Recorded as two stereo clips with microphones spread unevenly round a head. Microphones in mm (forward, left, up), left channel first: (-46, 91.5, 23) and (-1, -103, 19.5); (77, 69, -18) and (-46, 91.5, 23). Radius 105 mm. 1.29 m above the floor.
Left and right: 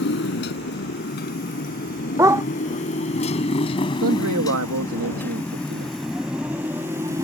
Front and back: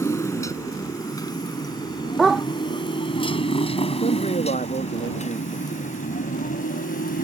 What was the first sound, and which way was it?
A motorcycle, 60° left.